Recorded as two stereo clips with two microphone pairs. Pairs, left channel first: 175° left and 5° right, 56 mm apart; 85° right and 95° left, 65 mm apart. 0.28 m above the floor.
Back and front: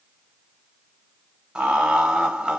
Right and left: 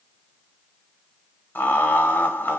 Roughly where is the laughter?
Ahead right.